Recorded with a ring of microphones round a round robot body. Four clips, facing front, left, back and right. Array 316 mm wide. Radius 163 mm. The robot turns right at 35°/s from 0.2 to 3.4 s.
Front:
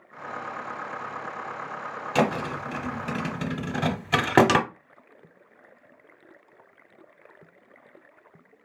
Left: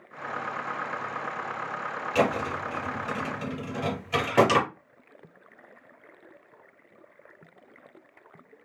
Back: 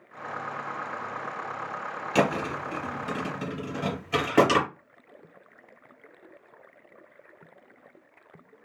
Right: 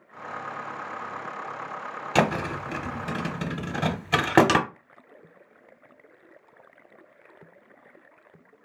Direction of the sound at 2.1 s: 90° right.